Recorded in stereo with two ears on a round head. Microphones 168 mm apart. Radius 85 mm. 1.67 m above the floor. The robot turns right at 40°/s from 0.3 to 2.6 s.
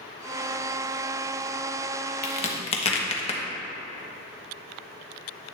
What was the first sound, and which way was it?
A crack, 40° left (ahead or behind).